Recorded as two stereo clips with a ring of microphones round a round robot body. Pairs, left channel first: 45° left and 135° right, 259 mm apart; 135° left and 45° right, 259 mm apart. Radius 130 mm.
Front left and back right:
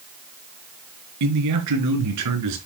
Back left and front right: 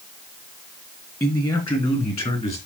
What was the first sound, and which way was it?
A man speaking, 145° right.